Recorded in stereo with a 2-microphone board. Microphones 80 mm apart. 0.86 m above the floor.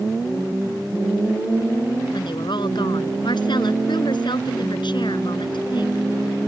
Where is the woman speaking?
75° left (ahead or behind).